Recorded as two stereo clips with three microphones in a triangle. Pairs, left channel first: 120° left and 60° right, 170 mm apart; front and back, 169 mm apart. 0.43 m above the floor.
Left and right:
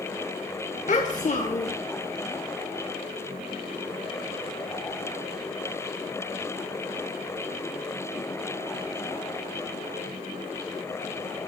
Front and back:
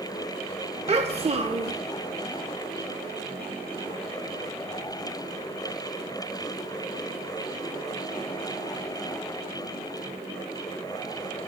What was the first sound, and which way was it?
A child speaking, 140° left.